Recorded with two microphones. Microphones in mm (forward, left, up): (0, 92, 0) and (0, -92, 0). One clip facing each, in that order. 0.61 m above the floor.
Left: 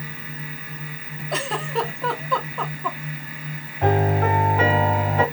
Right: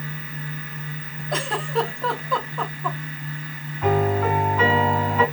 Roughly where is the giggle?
Centre.